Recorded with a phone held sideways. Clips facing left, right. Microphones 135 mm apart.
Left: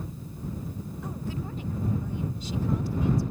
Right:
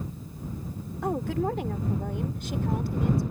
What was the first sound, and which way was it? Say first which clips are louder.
A woman speaking: right 10 dB; 75° right (ahead or behind).